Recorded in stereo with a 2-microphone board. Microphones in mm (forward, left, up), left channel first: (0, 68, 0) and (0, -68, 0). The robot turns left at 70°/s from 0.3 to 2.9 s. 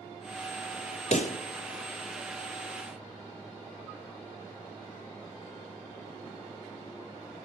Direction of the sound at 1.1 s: 60° left (ahead or behind).